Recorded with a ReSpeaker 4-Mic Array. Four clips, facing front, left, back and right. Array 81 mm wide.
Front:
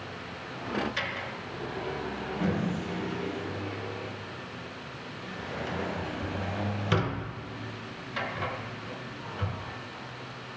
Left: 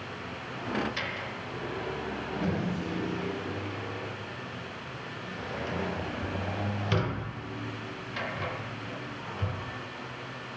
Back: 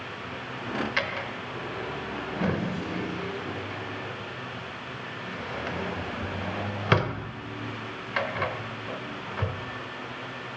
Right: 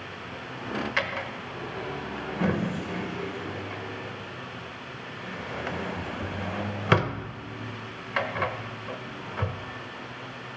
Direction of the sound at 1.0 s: 120° right.